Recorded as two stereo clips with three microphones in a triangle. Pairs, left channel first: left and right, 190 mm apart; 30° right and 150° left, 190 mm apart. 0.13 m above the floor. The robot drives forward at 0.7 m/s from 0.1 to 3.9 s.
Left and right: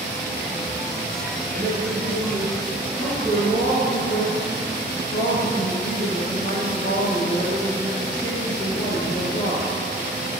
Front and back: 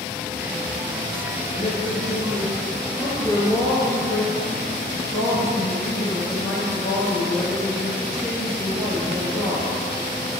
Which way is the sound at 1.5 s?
70° right.